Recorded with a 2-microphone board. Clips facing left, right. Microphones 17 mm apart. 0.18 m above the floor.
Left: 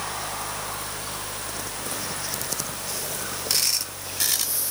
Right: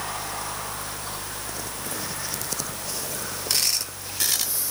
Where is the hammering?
No hammering in this recording.